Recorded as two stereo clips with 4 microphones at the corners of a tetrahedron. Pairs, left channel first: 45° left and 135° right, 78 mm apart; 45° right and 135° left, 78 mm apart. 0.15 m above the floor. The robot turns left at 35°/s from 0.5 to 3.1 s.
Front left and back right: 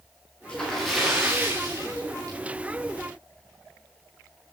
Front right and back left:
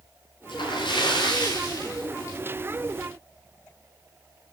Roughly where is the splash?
Ahead right.